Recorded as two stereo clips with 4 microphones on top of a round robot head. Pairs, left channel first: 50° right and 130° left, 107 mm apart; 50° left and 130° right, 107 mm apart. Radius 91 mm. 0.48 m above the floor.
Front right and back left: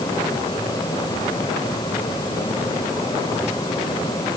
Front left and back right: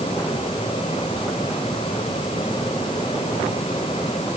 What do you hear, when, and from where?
Only background noise.